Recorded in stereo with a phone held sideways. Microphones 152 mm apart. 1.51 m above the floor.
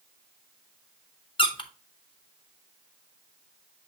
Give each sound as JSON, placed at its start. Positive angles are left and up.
{"t": 1.4, "sound": "a squeak", "side_deg": 35, "distance_m": 0.9}